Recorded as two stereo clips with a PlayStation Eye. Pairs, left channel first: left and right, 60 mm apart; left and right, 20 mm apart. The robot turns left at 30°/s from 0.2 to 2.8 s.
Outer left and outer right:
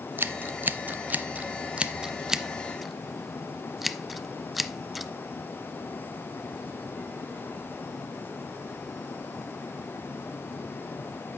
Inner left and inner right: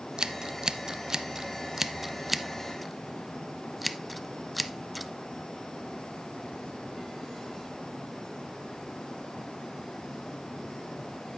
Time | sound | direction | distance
0.2 | scissors | 40° right (ahead or behind) | 0.7 m